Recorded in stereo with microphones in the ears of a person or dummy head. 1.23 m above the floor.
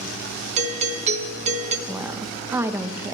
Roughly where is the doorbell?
Right.